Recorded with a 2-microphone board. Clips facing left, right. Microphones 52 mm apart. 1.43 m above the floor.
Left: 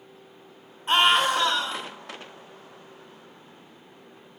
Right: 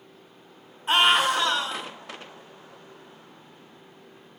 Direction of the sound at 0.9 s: 5° left (ahead or behind).